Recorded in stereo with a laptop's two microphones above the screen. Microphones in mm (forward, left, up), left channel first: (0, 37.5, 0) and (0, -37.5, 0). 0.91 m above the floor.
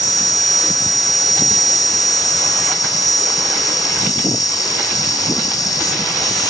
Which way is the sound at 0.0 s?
65° left (ahead or behind).